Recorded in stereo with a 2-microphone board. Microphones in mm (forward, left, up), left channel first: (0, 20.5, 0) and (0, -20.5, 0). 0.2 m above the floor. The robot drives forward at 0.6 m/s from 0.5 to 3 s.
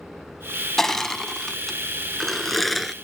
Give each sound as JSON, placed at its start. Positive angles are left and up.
{"t": 0.8, "sound": "crushing", "side_deg": 10}